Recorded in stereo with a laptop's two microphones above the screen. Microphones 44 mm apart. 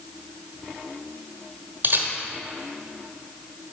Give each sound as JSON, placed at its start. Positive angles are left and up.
{"t": 1.8, "sound": "a camera shutter", "side_deg": -45, "distance_m": 1.1}